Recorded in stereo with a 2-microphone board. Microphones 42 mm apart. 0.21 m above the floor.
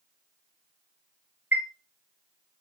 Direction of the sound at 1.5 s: 50° right (ahead or behind).